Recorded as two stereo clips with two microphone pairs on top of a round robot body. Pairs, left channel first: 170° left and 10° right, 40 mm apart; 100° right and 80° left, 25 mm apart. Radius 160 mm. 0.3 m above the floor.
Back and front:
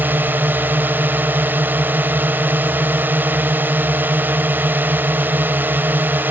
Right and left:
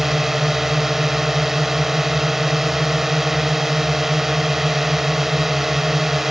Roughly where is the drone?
Ahead.